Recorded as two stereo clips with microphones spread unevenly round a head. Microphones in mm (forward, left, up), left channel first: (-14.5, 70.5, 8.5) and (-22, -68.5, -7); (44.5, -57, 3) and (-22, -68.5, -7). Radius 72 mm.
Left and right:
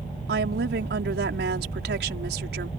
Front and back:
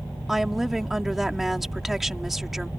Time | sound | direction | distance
0.3 | a woman speaking | 85° right | ?